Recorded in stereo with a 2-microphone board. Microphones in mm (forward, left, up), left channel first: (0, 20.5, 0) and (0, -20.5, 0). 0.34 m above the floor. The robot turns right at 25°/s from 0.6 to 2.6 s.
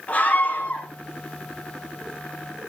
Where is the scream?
35° left (ahead or behind), 1.7 m.